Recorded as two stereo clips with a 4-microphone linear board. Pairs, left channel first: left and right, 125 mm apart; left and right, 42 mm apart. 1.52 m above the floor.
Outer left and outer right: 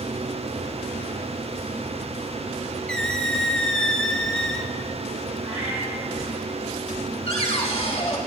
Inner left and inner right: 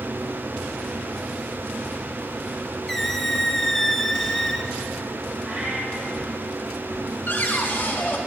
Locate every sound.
2.9 s a squeak: 5° left (ahead or behind), 0.7 m
5.4 s a cat meowing: 45° right (ahead or behind), 4 m
7.3 s a cupboard door: 60° left (ahead or behind), 1.8 m